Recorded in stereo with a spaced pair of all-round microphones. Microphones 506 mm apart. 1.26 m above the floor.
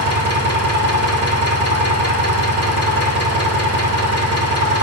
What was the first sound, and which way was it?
An engine running, 30° left (ahead or behind).